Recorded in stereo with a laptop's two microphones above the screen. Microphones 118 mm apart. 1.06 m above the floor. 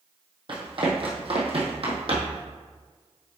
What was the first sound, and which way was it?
Running footsteps, 50° right (ahead or behind).